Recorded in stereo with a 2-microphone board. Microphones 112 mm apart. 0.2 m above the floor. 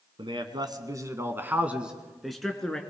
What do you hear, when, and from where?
0.2 s a man speaking: 50° right (ahead or behind), 2 m; by 2.8 s 10° left (ahead or behind), 3 m